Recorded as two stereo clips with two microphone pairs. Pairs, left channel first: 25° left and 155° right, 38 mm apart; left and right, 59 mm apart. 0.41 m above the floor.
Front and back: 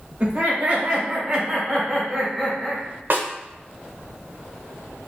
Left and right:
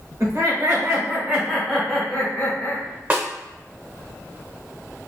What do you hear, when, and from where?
0.2 s laughter: 105° right, 1.4 m; by 2.8 s 95° left, 1.1 m
3.1 s a snare drum: 140° right, 0.6 m